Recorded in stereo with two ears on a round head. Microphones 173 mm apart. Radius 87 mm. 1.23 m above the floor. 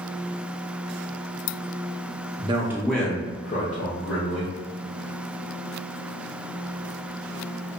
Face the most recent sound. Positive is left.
turn(degrees=55)  # may be behind; listen again after turning